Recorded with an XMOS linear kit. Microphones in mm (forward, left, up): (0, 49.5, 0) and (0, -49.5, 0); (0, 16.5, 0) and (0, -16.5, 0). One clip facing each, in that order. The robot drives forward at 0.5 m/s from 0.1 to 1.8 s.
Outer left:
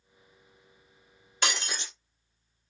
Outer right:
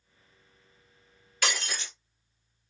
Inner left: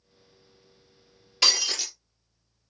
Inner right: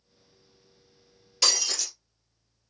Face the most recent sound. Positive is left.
turn(degrees=25)  # may be behind; listen again after turning